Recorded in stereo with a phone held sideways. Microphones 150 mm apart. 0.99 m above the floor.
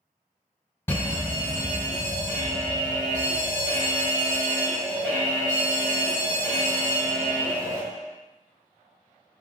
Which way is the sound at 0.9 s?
15° left (ahead or behind).